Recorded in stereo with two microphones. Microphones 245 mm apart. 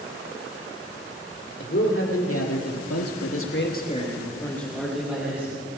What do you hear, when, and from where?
1.6 s a man speaking: 55° left (ahead or behind), 3 m; by 5.6 s 10° right (ahead or behind), 3.5 m